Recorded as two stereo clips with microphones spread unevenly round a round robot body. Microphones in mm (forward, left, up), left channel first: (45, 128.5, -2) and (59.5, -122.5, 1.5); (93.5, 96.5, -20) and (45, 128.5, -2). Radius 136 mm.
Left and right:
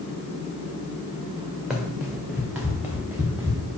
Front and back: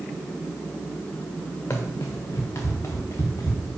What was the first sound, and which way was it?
Running footsteps, straight ahead.